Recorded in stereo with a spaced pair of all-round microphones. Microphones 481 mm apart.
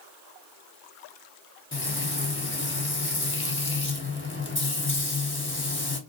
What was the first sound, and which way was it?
Frying, 25° left (ahead or behind).